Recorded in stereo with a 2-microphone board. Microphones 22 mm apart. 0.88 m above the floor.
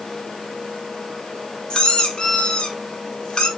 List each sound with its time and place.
1.7 s a squeak: 40° left (ahead or behind), 2 m